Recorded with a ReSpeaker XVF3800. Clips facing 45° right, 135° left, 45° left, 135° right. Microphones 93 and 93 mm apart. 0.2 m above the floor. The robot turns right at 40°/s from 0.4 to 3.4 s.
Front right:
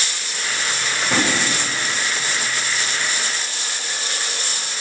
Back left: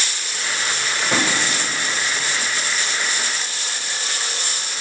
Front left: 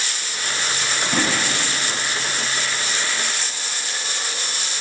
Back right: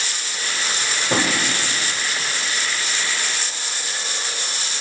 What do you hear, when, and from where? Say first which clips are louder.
1.1 s a drawer: front right 1 dB, back right 2 dB; 130° right, 6 m; by 1.4 s 120° right, 6 m